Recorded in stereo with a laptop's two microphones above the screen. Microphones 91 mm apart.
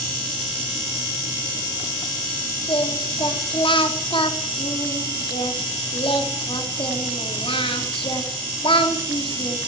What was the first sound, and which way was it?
Singing, 80° left.